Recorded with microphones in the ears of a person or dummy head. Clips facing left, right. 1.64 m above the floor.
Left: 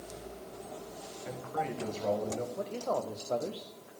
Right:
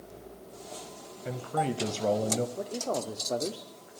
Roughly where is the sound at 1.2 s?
Right.